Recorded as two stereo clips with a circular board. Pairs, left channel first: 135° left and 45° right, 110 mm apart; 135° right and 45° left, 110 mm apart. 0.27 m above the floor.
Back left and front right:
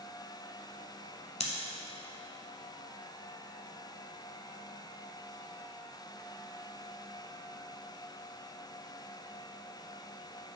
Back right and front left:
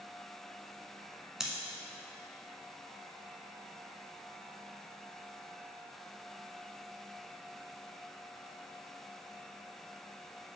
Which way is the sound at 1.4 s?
130° left.